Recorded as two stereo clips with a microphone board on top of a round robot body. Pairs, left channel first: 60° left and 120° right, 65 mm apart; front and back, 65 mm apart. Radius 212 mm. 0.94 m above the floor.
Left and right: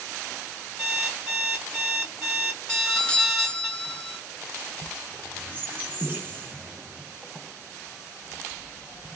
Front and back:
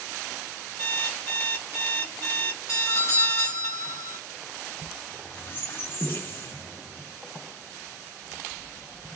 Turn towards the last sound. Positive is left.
turn(degrees=-55)